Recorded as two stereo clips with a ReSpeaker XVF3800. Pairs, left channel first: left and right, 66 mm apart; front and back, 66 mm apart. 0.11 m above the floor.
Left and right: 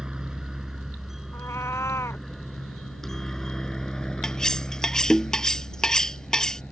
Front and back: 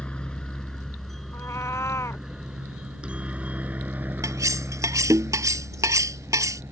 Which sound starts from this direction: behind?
Cutlery clinking, at 4.2 s.